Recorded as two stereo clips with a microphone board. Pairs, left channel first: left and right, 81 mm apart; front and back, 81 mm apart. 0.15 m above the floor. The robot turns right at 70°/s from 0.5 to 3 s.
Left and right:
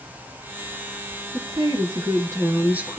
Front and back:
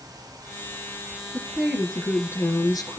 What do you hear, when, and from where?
1.3 s a woman speaking: 125° right, 2.5 m; by 3.0 s 10° right, 2.5 m